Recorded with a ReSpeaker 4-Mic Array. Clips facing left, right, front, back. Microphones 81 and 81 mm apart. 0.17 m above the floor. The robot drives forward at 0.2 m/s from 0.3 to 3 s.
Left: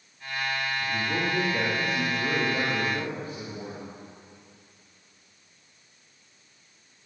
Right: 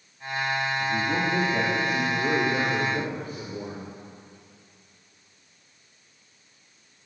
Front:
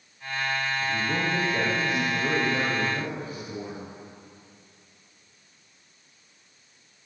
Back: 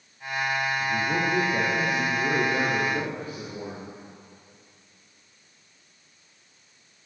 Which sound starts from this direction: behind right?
A man speaking, at 0.8 s.